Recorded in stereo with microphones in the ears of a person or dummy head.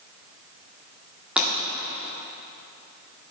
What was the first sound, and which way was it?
Breaking glass, 5° right (ahead or behind).